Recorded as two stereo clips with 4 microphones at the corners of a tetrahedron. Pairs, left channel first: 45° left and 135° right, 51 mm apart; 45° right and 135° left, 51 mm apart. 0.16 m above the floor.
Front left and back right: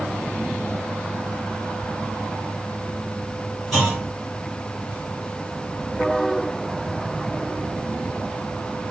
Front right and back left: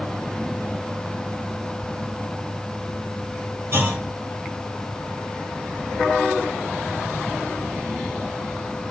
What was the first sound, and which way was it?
A clunk, 130° left.